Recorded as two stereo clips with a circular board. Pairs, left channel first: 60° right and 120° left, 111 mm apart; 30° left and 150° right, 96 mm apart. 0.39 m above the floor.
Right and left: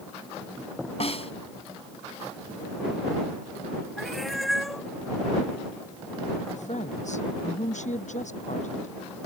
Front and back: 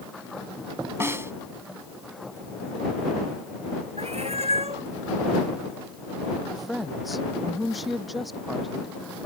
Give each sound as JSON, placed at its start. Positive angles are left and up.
{"t": 1.0, "sound": "a snare drum", "azimuth_deg": -85}
{"t": 4.0, "sound": "a cat meowing", "azimuth_deg": -150}
{"t": 6.5, "sound": "a woman speaking", "azimuth_deg": -60}